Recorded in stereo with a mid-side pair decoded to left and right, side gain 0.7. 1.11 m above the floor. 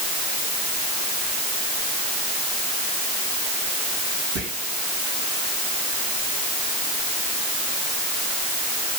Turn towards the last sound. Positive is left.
turn(degrees=-65)